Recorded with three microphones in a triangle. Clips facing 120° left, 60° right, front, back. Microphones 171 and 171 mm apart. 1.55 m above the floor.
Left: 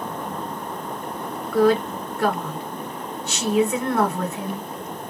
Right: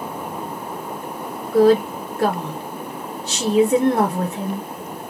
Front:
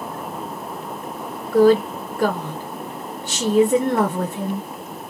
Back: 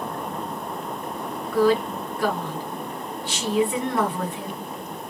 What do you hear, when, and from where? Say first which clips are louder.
1.5 s a woman speaking: right 4 dB, front 6 dB; 20° right, 0.6 m